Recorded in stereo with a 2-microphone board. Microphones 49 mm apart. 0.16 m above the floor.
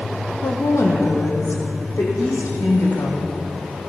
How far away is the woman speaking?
About 4.5 m.